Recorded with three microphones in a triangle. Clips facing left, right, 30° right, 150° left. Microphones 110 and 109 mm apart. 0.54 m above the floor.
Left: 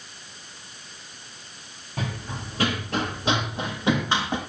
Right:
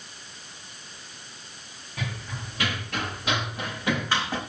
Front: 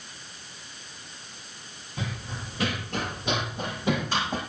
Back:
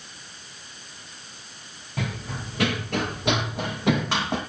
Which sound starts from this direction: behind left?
Running footsteps, at 2.0 s.